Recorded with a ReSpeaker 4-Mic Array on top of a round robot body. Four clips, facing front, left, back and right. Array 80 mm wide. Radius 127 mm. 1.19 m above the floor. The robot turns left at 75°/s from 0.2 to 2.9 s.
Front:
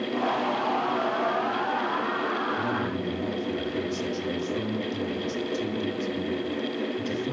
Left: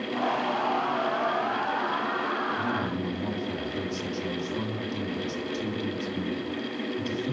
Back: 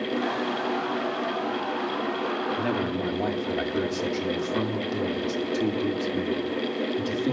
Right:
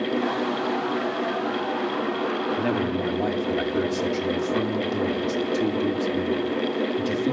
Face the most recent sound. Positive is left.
turn(degrees=-130)